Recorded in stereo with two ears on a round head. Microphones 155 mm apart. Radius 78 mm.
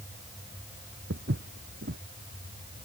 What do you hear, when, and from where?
1.1 s footsteps: 65° right (ahead or behind)